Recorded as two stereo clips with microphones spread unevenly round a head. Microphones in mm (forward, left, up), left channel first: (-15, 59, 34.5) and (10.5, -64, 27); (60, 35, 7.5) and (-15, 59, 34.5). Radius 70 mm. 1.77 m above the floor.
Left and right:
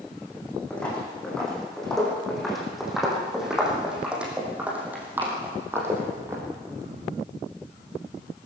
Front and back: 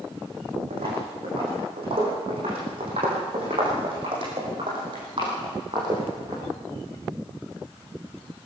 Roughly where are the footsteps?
Behind.